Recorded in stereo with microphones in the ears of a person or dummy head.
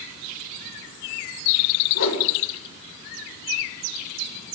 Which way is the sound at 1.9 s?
75° left (ahead or behind).